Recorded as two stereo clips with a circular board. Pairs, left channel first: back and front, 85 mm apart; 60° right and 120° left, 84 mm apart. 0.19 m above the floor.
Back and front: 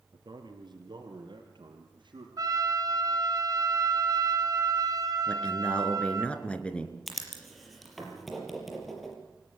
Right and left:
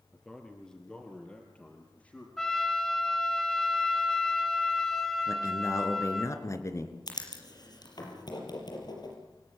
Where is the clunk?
No clunk in this recording.